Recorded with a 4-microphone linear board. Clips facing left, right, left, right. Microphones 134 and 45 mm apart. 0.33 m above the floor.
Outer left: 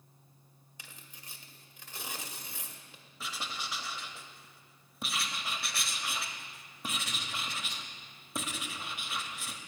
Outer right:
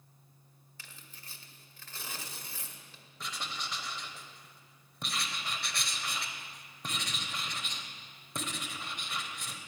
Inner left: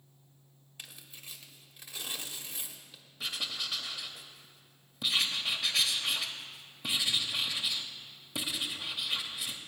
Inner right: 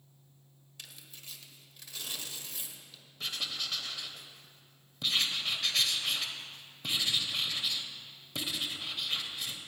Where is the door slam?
I don't hear a door slam.